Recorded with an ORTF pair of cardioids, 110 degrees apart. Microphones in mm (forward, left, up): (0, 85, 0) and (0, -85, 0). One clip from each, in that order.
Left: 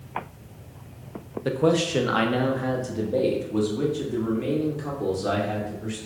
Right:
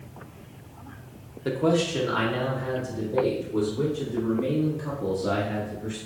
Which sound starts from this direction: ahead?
A man speaking, at 1.4 s.